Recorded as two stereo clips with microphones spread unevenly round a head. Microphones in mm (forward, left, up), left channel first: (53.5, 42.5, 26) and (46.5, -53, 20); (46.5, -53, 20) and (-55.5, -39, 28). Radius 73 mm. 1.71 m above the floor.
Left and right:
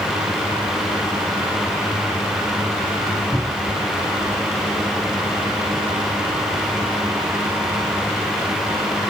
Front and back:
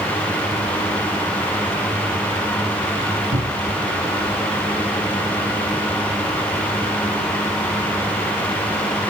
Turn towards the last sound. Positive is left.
turn(degrees=180)